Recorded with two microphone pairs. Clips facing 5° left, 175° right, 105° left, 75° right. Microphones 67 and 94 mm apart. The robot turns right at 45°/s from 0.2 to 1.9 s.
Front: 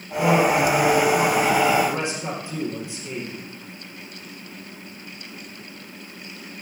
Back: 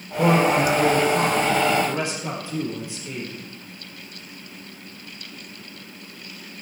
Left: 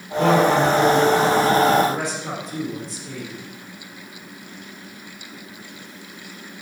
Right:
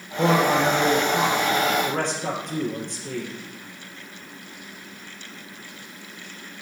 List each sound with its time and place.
0.2 s a man speaking: 140° right, 4 m; by 3.3 s 65° right, 4 m